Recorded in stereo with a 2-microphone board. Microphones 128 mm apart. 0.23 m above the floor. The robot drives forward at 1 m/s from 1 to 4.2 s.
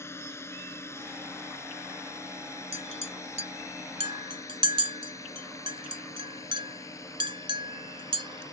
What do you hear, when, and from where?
0.0 s a drone: 20° left (ahead or behind); by 8.5 s 25° left (ahead or behind)
2.7 s a clink: 55° right (ahead or behind); by 8.4 s 40° right (ahead or behind)